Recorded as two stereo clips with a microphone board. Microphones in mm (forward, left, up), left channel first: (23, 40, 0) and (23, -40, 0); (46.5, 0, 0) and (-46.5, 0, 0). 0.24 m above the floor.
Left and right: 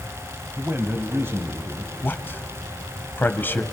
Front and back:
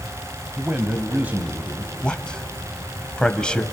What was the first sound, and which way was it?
A man speaking, 120° right.